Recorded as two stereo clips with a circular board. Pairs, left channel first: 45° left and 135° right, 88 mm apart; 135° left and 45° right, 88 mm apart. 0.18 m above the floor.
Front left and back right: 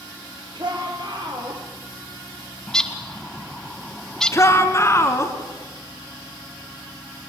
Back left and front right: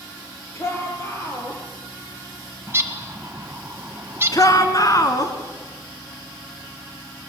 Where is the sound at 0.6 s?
165° right, 5.5 m; by 1.6 s 170° right, 5 m.